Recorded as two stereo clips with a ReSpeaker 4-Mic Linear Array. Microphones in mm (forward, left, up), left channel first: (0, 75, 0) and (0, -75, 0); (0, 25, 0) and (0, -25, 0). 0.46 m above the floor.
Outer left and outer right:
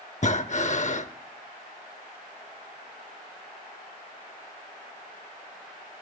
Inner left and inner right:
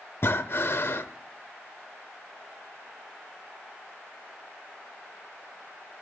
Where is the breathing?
50° left (ahead or behind), 0.6 m.